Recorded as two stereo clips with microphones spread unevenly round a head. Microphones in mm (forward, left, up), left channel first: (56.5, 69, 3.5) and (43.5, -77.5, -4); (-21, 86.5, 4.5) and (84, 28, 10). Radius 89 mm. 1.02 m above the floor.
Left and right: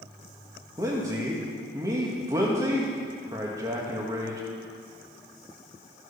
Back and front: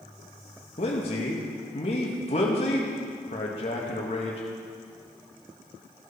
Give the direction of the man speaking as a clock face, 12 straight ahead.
5 o'clock.